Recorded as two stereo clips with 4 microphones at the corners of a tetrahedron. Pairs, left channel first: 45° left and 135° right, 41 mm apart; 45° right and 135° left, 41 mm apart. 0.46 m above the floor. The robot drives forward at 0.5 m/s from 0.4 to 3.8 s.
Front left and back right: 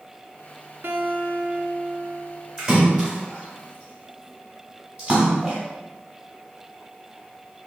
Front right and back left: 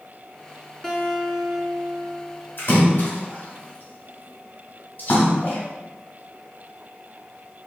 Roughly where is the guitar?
Behind right.